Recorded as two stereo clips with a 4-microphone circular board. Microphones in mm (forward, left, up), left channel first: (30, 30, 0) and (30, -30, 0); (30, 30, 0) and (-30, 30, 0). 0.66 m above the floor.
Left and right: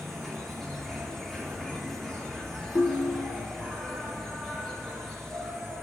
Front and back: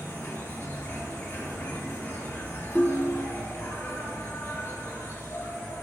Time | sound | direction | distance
0.0 | an insect | 10° left | 2 m
2.8 | a ringtone | 70° left | 0.8 m